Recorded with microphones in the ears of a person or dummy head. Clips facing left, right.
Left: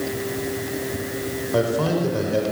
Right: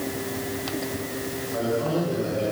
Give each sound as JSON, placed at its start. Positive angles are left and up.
{"t": 1.5, "sound": "a man speaking", "side_deg": 85, "distance_m": 4.5}